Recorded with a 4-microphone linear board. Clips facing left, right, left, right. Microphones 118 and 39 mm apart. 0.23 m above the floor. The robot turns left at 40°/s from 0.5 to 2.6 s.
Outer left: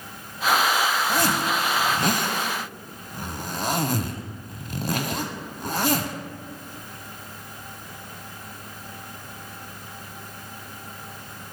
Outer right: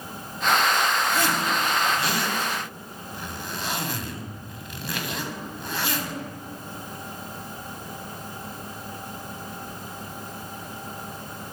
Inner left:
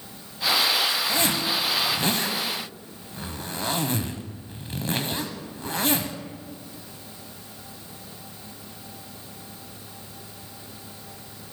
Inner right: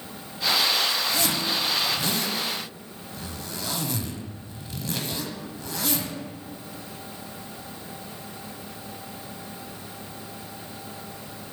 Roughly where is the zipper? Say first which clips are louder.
Outer left 1 dB, inner left 1 dB; left.